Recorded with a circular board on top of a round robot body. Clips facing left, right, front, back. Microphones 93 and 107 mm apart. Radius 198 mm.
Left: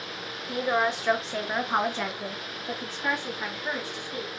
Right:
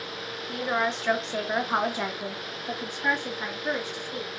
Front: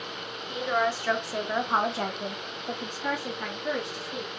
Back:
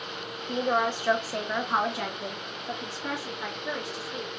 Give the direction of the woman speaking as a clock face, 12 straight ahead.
7 o'clock.